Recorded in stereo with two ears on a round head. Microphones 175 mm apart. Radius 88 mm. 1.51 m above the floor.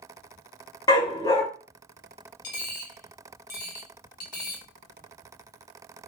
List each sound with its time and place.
0.9 s a dog barking: 20° left (ahead or behind), 1.0 m
2.4 s a dropped coin: 40° left (ahead or behind), 1.0 m